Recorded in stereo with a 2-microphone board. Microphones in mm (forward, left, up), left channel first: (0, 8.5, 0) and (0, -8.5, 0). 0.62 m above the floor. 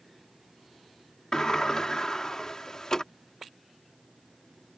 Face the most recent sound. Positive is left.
turn(degrees=35)  # may be behind; listen again after turning